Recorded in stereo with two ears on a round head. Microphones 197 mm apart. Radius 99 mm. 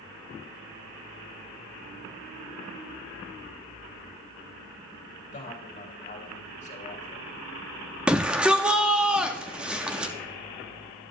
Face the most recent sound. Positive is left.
turn(degrees=-5)  # may be behind; listen again after turning